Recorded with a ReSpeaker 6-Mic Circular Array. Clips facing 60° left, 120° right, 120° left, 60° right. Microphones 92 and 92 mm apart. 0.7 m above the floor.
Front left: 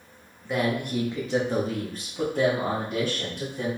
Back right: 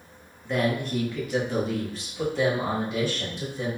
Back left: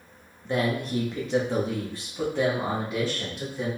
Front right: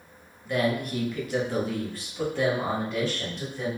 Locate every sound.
0.5 s a man speaking: 145° left, 1.0 m; by 3.7 s 40° left, 2 m